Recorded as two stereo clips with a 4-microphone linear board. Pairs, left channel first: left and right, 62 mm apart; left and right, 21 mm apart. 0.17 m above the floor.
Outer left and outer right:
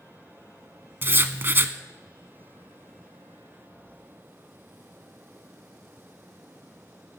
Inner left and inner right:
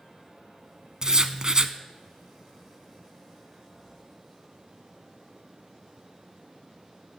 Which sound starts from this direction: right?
Writing, at 1.0 s.